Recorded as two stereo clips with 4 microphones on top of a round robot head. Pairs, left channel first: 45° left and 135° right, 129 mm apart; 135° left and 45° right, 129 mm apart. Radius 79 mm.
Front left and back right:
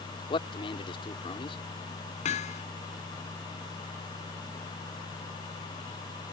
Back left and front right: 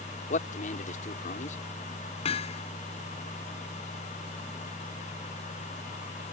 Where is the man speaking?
100° left.